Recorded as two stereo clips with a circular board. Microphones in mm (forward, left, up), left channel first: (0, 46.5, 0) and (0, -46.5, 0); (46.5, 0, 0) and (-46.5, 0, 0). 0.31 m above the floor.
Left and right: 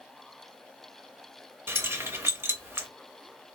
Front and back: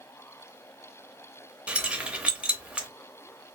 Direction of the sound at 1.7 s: 115° right.